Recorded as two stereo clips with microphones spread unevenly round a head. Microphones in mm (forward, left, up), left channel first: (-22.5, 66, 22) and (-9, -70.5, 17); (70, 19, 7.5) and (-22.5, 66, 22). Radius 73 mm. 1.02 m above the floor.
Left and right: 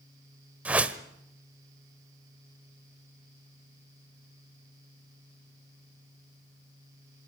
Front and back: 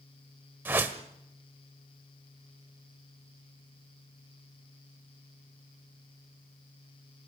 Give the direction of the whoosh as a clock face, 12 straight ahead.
5 o'clock.